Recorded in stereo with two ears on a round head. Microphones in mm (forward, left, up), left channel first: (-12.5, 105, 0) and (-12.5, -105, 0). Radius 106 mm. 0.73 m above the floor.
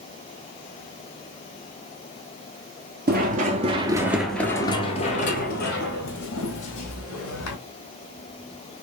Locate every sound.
3.1 s running footsteps: 40° right (ahead or behind), 0.9 m; by 7.6 s 60° left (ahead or behind), 1.8 m